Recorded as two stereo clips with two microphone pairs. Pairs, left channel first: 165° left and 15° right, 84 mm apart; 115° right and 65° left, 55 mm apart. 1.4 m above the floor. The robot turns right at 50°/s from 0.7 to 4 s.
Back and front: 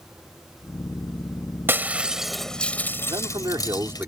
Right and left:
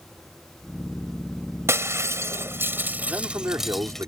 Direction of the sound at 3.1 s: 5° left.